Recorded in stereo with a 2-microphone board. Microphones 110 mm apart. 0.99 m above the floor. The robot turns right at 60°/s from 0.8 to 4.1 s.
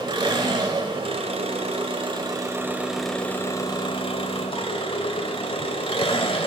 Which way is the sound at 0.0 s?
135° right.